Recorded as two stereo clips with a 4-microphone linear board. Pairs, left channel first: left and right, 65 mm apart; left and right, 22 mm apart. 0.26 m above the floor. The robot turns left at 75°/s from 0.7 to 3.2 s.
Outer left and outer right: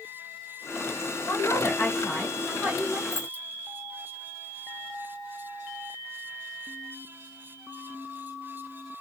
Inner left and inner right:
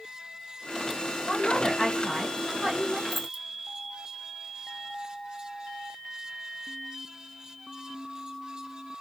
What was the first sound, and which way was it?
A woman speaking, 90° left.